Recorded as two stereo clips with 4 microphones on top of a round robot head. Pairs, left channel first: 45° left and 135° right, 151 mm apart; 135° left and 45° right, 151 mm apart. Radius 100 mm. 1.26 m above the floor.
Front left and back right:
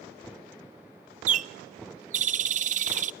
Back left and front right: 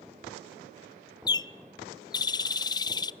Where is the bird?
160° right, 0.5 m.